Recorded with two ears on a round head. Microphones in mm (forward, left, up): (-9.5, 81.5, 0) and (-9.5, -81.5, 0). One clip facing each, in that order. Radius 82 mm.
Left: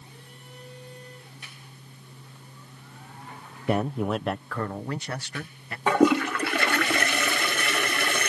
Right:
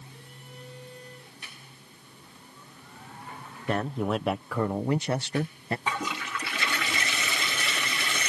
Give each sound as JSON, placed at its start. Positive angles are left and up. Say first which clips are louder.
{"t": 3.7, "sound": "a man speaking", "louder": "left 2 dB", "side_deg": 10}
{"t": 5.9, "sound": "a toilet flushing", "louder": "left 14 dB", "side_deg": 45}